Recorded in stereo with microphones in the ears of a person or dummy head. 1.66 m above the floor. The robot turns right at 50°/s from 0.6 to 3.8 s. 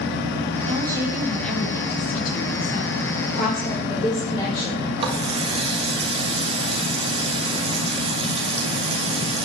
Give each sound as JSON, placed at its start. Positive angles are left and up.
{"t": 0.7, "sound": "a woman speaking", "azimuth_deg": -35, "distance_m": 3.0}
{"t": 3.2, "sound": "a woman speaking", "side_deg": 55, "distance_m": 5.0}
{"t": 5.0, "sound": "a running tap", "side_deg": -30, "distance_m": 1.4}